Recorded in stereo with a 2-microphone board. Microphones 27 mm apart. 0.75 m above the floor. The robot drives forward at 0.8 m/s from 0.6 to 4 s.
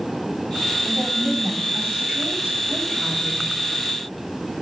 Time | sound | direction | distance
0.8 | a woman speaking | 45° right (ahead or behind) | 5.5 m